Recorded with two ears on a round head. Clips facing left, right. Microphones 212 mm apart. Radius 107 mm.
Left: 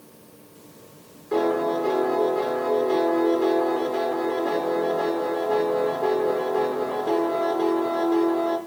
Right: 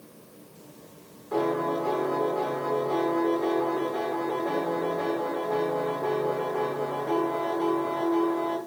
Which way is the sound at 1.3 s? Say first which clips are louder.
Left 4 dB; 35° left (ahead or behind).